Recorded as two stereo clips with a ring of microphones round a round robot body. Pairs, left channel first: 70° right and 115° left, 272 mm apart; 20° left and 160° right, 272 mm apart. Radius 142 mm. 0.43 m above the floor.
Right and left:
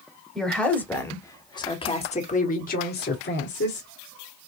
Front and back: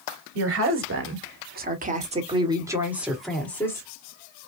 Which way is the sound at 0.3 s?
155° right.